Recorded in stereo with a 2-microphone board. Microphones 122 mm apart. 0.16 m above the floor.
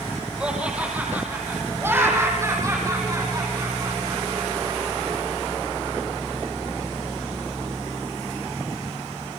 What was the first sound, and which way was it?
Laughter, 10° right (ahead or behind).